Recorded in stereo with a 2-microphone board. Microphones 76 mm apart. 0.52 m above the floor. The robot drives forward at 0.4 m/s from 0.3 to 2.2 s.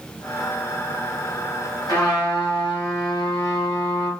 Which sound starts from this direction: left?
A trumpet, at 1.9 s.